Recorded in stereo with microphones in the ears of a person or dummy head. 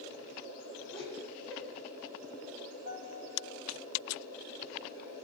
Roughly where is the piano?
Right.